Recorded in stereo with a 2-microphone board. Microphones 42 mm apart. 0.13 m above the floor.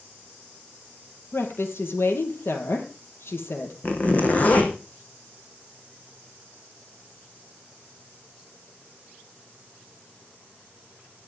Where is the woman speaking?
65° left (ahead or behind), 4 m.